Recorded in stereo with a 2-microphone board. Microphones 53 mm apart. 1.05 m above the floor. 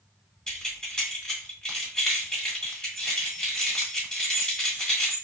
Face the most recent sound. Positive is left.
turn(degrees=15)  # may be behind; listen again after turning